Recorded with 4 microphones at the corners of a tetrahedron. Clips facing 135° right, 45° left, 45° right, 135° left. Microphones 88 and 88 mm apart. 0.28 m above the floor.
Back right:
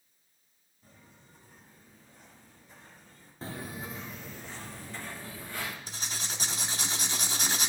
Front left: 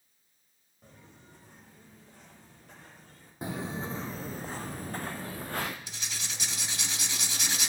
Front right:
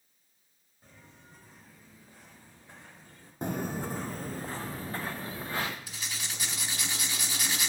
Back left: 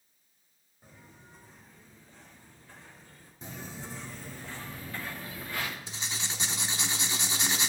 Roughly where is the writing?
Behind.